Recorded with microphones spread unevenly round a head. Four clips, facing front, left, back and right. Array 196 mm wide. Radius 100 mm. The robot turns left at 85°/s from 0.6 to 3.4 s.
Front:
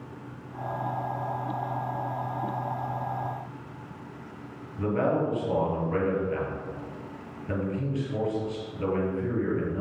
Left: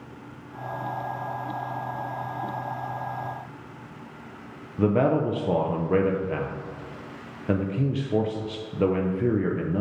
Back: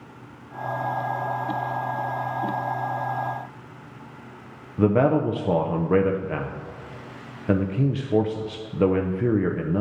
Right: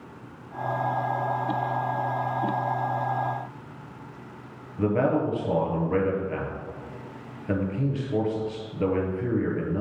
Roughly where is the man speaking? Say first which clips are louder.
Left 2 dB, back 6 dB; behind.